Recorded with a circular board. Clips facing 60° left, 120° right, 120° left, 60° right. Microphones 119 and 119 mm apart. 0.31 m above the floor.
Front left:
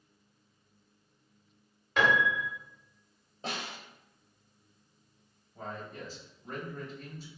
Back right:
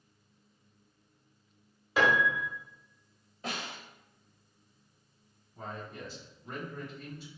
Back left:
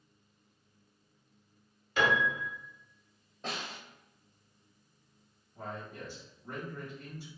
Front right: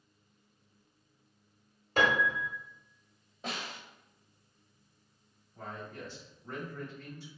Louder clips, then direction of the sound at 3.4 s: Even, even; 20° left.